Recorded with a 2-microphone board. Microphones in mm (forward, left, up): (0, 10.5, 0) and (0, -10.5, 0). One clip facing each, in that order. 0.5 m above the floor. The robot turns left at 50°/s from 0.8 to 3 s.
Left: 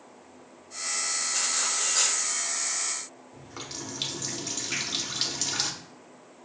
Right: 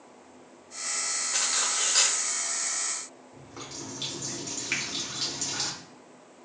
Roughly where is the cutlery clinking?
Right.